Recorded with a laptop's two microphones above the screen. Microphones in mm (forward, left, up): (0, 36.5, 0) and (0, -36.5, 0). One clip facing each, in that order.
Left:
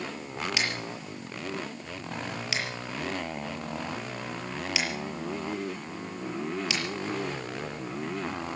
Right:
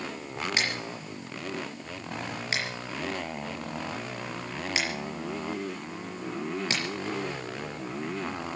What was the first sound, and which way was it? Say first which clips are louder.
Scissors: right 1 dB; 40° right (ahead or behind).